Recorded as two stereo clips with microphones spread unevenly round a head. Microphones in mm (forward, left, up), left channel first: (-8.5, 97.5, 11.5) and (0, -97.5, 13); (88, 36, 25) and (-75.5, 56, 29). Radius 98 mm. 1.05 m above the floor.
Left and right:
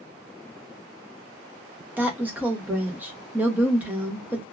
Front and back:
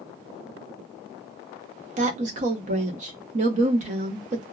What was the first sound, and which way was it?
A woman speaking, 165° right.